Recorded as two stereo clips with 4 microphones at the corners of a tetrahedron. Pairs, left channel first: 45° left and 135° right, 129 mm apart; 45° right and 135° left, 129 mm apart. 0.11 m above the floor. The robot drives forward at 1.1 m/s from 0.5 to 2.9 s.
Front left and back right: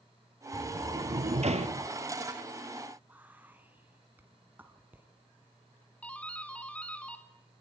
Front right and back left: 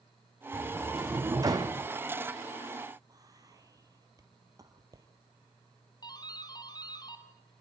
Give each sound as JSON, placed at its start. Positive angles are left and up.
{"t": 0.5, "sound": "a sliding door", "azimuth_deg": -145, "distance_m": 1.1}
{"t": 3.1, "sound": "whispering", "azimuth_deg": 160, "distance_m": 1.8}
{"t": 6.0, "sound": "a doorbell", "azimuth_deg": -30, "distance_m": 2.5}